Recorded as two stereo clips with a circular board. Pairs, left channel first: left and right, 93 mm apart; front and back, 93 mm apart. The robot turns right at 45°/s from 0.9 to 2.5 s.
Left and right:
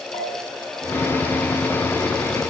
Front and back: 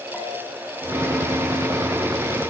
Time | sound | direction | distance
0.1 | a bell | 95° left | 4.5 m